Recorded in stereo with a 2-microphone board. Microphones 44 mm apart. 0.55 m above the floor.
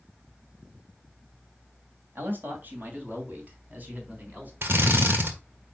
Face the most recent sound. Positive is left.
turn(degrees=-60)  # may be behind; listen again after turning